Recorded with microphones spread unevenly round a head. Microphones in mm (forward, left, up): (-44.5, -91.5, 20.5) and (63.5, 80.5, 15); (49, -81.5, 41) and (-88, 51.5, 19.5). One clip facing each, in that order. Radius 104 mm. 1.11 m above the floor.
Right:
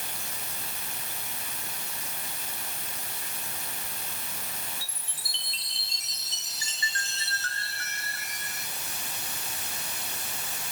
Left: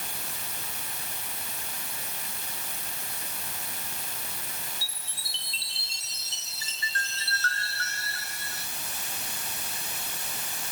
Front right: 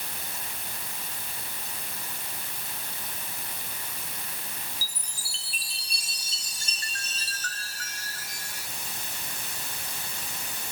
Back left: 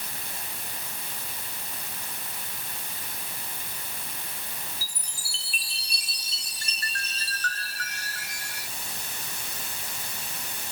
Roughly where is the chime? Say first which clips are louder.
Even, even; behind.